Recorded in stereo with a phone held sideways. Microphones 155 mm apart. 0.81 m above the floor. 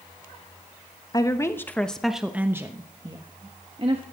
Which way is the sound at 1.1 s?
25° left (ahead or behind).